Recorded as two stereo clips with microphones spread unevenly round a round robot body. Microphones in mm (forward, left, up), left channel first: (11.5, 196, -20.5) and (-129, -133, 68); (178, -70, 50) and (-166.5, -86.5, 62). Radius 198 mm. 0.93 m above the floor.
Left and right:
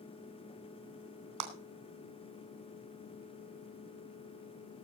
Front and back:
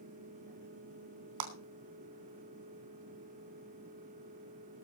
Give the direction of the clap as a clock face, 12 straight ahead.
5 o'clock.